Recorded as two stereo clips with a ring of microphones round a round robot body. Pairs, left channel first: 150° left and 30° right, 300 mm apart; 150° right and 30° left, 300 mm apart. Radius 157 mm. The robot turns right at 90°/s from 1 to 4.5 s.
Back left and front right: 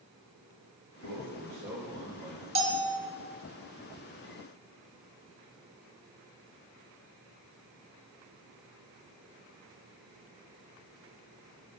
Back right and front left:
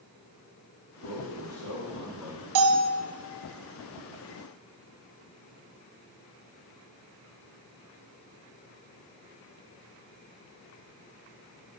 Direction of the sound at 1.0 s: 10° right.